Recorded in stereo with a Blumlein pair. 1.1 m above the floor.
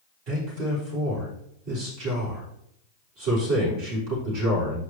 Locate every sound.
0.3 s a man speaking: 45° right, 3 m